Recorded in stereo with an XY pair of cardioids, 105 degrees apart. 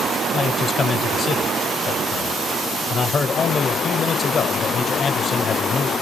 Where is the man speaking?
45° left, 1.1 m.